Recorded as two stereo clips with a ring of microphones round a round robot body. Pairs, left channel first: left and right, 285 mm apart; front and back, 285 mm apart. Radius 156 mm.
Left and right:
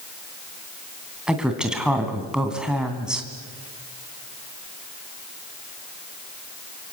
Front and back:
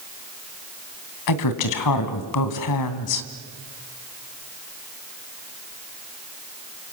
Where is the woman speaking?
5° right, 2.5 m.